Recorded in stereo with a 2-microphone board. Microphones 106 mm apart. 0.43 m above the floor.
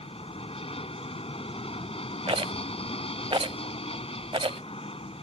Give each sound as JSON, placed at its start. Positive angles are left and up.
{"t": 0.0, "sound": "an aircraft", "side_deg": 65}
{"t": 2.3, "sound": "a rattle", "side_deg": -60}